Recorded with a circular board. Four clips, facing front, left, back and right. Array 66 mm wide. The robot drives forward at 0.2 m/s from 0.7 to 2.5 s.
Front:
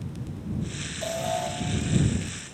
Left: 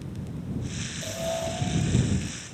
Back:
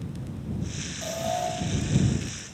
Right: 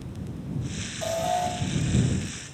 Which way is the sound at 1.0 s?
95° right.